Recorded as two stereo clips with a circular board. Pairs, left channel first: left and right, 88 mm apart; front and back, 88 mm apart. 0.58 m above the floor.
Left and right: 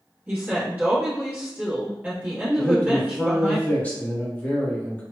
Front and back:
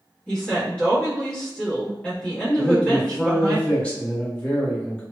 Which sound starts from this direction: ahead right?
A woman speaking, at 0.3 s.